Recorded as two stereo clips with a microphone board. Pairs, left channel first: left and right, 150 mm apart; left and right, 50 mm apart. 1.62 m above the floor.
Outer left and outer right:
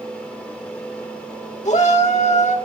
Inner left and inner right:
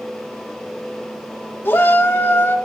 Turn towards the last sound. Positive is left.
turn(degrees=50)  # may be behind; listen again after turning